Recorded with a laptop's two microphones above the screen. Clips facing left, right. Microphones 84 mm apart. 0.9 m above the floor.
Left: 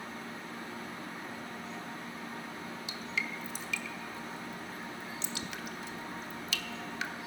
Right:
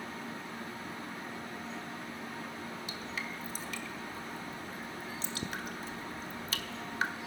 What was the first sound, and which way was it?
Dripping, 40° right (ahead or behind).